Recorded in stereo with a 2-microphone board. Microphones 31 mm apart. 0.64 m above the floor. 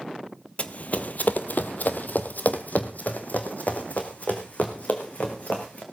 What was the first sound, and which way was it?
Running footsteps, 40° left (ahead or behind).